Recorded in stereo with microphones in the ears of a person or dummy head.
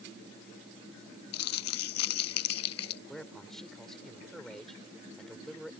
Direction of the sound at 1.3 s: 70° left (ahead or behind).